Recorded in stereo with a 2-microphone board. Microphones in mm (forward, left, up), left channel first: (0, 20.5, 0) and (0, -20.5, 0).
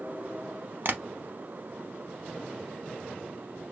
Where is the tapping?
55° right (ahead or behind), 0.7 m.